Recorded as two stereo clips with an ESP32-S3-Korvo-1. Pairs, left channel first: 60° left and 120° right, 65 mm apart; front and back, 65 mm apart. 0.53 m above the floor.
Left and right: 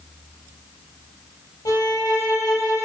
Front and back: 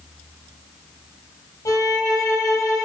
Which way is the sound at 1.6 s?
45° left.